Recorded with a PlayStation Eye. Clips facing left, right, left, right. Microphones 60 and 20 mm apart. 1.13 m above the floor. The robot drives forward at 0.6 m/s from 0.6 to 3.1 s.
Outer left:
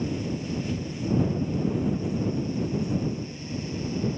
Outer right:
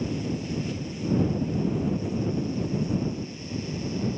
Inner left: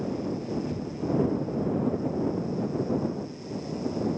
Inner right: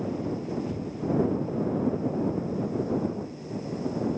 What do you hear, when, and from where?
0.7 s a cupboard door: 15° left (ahead or behind); by 1.2 s 20° left (ahead or behind)